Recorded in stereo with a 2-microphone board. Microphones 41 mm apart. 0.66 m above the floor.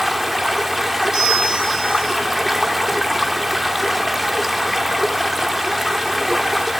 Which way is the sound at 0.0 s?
5° right (ahead or behind).